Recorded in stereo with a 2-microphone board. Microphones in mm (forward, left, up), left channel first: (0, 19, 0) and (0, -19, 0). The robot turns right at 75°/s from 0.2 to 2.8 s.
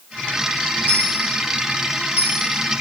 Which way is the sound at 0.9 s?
40° right (ahead or behind).